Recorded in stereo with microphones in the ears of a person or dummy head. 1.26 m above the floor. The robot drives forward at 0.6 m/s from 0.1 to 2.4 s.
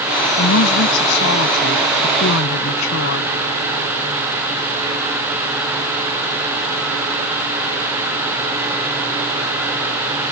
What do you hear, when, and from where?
0.4 s a woman speaking: 70° left (ahead or behind); by 3.3 s 65° left (ahead or behind)